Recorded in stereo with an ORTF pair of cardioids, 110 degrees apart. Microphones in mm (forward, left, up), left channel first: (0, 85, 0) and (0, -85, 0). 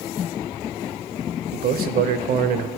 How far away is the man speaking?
About 0.7 m.